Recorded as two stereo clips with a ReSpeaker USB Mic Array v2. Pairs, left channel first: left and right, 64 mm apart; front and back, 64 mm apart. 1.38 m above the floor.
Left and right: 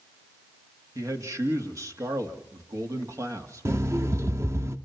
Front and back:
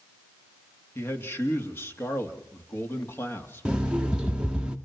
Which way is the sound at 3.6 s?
110° right.